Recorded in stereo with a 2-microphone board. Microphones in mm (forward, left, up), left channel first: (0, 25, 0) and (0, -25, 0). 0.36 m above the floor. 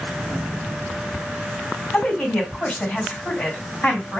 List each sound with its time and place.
1.9 s a woman speaking: 30° left (ahead or behind), 2 m